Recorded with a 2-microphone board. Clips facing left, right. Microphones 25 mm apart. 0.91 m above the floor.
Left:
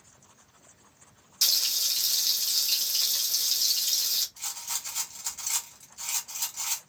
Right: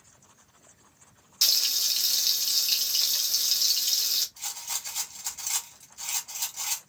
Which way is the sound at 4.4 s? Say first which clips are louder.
Even; centre (ahead or behind).